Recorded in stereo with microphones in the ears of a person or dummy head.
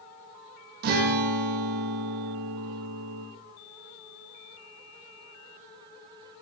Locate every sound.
0.8 s a guitar: 55° right (ahead or behind), 1.0 m